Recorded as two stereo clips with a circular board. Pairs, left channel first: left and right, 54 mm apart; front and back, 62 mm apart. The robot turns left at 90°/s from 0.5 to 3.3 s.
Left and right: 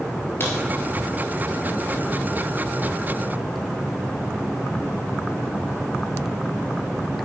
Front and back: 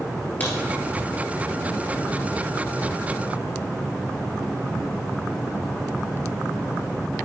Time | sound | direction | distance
0.4 | a crack | 55° left | 2.5 m